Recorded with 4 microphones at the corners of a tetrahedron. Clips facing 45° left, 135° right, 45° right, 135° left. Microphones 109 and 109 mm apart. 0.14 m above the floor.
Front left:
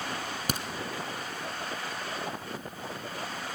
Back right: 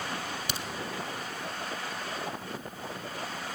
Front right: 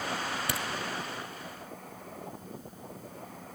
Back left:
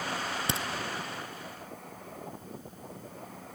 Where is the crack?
75° left, 1.0 m.